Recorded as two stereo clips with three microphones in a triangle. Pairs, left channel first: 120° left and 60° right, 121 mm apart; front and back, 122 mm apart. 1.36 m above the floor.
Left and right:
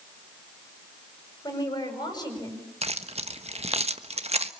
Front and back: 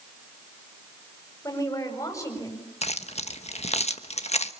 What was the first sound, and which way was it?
A woman speaking, 65° left.